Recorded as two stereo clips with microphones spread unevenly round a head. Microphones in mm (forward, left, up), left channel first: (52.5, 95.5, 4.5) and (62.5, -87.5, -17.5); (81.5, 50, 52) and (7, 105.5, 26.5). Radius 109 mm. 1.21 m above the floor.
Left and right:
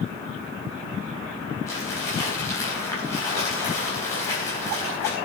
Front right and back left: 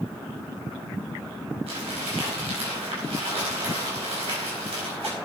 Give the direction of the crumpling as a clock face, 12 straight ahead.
6 o'clock.